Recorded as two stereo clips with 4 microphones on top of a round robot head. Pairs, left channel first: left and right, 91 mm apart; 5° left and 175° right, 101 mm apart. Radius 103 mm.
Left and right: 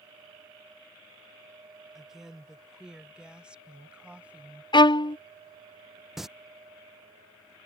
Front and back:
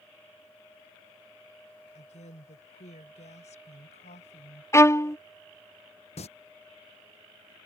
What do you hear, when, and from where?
1.9 s a woman speaking: 5° right; by 4.6 s 15° right
4.7 s a violin: 65° left
6.2 s singing: 5° right